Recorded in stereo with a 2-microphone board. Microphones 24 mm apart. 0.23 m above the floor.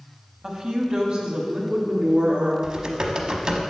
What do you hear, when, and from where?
0.4 s a woman speaking: 30° right (ahead or behind), 1.1 m; by 2.5 s 55° right (ahead or behind), 2.5 m
2.6 s typing on a keyboard: 35° right (ahead or behind), 0.9 m